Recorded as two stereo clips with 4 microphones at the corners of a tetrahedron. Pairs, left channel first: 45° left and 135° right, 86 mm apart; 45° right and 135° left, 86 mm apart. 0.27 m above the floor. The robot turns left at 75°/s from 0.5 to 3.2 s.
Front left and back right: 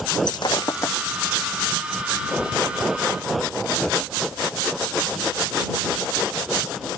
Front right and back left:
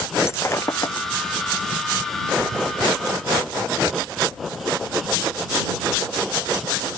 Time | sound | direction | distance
0.3 | breaking glass | 15° left | ?